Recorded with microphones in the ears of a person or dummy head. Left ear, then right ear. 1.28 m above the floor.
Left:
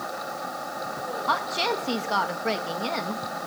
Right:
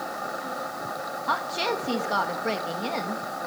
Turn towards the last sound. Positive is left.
turn(degrees=5)  # may be behind; listen again after turning